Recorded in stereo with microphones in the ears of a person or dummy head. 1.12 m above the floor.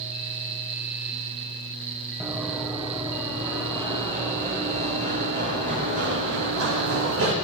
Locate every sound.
2.2 s running footsteps: 10° right (ahead or behind), 3.5 m; by 7.3 s 65° right (ahead or behind), 3 m